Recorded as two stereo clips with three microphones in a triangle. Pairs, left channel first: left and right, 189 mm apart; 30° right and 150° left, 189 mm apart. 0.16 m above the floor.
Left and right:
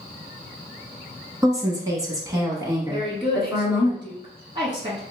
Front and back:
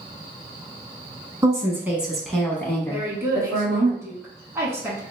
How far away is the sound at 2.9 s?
About 1.5 m.